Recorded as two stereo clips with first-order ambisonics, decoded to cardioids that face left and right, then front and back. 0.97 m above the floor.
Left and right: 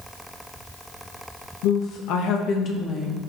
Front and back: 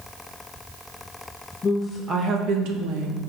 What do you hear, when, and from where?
1.6 s a woman speaking: 75° left, 0.8 m; by 3.2 s 165° left, 1.2 m